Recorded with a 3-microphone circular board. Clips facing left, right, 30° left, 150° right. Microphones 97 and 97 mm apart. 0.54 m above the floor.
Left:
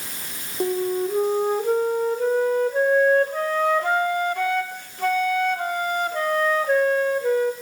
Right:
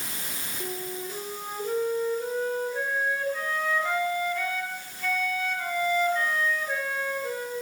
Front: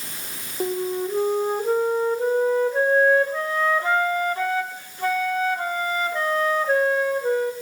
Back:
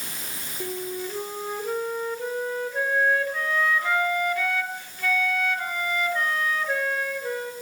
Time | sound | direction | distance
0.6 | a flute | 80° left | 1.1 m